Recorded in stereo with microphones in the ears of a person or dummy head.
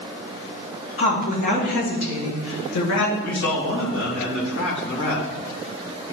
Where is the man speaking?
75° left (ahead or behind), 2 m.